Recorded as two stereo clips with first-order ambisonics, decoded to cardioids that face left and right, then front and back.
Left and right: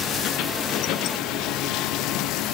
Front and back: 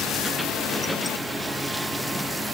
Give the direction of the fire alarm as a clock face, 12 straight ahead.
No fire alarm in this recording.